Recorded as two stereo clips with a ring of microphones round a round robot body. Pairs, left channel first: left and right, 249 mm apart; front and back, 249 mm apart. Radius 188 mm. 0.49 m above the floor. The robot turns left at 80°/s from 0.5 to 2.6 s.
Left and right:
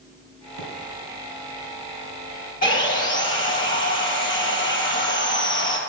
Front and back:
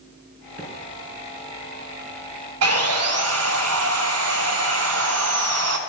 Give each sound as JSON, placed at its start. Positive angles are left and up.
{"t": 0.6, "sound": "a microwave", "azimuth_deg": -120, "distance_m": 2.5}
{"t": 2.6, "sound": "sawing", "azimuth_deg": 160, "distance_m": 1.4}